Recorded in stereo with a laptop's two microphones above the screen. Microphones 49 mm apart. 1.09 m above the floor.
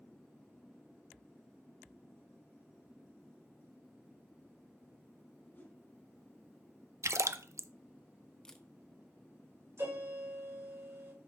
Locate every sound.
5.5 s a whoosh: 40° left (ahead or behind), 3 m
7.0 s a splash: 75° right (ahead or behind), 0.5 m
8.4 s a camera shutter: 10° left (ahead or behind), 0.9 m
9.8 s a piano: 75° right (ahead or behind), 5 m